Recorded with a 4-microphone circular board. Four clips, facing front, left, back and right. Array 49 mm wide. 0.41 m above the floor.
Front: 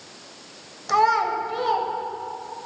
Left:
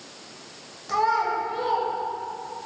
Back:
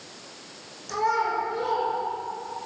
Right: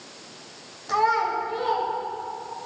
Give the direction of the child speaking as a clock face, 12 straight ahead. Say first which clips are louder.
Right 1 dB, front 5 dB; 12 o'clock.